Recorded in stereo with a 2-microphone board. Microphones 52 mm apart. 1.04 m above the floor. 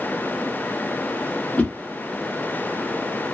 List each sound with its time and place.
1.6 s a whoosh: 25° left (ahead or behind), 0.6 m